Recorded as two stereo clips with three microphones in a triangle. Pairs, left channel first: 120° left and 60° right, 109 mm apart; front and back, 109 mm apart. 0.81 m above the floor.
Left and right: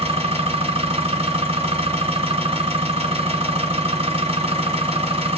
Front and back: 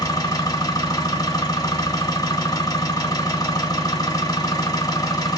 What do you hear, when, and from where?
0.0 s an engine running: 50° right, 1.8 m